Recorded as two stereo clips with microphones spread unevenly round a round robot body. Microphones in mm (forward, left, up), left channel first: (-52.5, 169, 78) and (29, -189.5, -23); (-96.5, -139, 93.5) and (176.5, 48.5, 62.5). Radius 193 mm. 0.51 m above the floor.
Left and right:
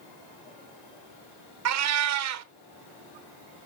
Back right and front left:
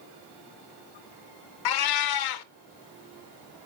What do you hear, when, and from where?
1.6 s a cat meowing: 125° right, 0.6 m